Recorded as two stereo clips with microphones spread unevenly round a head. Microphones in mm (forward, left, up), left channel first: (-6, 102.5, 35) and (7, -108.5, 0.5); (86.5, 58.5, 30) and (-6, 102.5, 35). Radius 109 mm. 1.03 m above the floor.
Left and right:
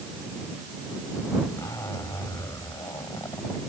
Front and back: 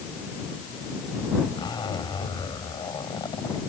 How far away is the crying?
No crying in this recording.